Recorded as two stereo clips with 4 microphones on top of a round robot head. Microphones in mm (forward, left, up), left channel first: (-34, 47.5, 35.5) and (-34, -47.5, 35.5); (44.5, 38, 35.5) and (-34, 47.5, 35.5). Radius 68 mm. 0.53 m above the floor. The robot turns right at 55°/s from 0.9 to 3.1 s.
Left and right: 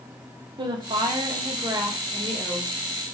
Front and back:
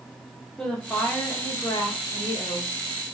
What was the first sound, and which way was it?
A woman speaking, 85° right.